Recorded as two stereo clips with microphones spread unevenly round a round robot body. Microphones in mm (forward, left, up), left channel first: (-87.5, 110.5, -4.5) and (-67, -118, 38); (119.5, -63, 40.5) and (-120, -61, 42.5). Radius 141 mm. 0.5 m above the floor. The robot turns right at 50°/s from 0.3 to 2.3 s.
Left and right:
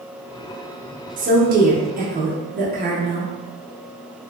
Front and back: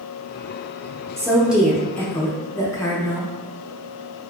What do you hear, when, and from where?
1.2 s a woman speaking: 115° right, 0.7 m; by 3.3 s 60° right, 0.7 m